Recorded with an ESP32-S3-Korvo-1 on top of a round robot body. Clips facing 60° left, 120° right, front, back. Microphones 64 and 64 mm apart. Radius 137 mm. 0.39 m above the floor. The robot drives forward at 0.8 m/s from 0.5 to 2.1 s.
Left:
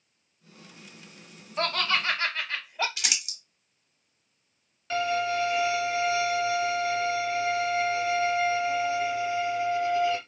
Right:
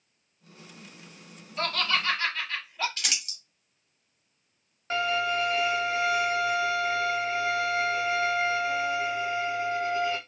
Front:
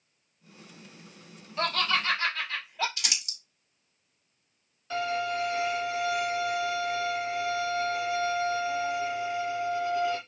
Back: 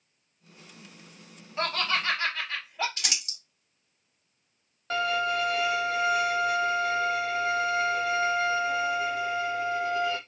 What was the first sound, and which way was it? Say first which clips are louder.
Laughter: left 1 dB, front 1 dB; 115° left.